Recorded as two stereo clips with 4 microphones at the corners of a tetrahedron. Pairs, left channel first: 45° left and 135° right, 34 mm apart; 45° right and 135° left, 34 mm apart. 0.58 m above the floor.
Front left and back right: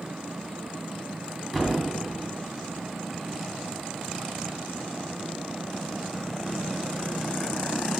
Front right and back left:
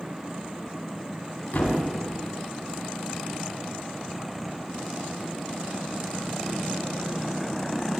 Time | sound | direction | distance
1.5 | a thud | 35° right | 2 m